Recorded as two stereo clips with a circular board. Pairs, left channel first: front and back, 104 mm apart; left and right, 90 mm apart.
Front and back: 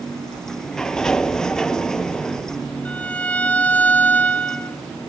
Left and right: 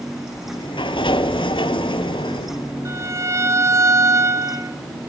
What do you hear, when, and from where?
0.3 s a sliding door: 85° left, 0.7 m
2.9 s a violin: 65° right, 0.8 m